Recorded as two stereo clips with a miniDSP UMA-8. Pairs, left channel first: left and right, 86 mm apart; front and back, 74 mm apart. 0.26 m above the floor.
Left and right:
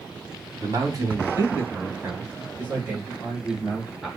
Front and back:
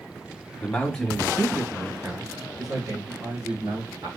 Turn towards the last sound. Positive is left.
turn(degrees=180)